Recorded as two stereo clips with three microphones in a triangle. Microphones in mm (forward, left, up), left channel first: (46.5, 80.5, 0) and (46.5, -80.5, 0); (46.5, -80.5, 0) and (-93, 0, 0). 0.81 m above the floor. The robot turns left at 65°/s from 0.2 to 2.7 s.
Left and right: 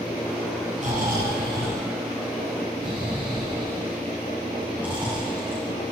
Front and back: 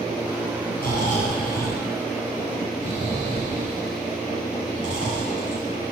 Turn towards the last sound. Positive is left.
turn(degrees=-170)